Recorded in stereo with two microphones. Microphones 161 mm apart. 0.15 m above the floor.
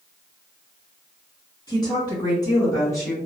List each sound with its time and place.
1.7 s a woman speaking: 25° left (ahead or behind), 1.6 m; by 3.1 s 20° left (ahead or behind), 2.0 m